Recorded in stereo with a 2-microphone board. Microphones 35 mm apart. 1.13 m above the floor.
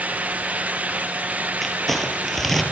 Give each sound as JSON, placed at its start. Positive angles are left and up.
{"t": 1.6, "sound": "crumpling", "side_deg": 10, "distance_m": 5.0}